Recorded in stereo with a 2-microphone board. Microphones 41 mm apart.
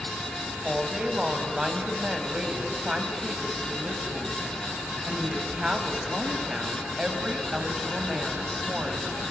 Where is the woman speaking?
20° right (ahead or behind), 3.5 m.